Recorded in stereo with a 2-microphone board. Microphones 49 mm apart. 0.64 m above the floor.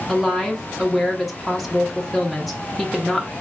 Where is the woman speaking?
Centre (ahead or behind), 0.8 m.